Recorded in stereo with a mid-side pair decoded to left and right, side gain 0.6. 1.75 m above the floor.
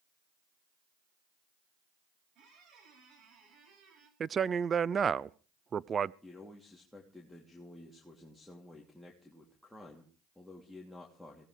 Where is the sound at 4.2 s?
35° right, 0.5 m.